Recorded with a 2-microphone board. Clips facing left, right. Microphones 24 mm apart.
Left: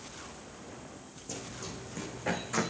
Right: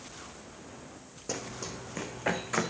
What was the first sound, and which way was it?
Running footsteps, 55° right (ahead or behind).